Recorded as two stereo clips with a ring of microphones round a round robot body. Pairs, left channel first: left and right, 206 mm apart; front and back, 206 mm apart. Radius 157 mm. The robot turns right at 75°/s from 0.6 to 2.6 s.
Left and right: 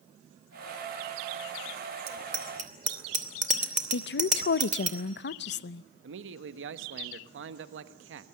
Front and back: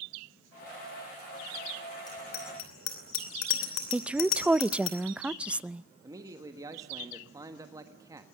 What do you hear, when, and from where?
2.1 s a bicycle bell: 75° right, 3 m; by 4.9 s 35° right, 3 m
3.9 s a woman speaking: 95° left, 0.7 m
6.0 s a man speaking: 105° right, 1.3 m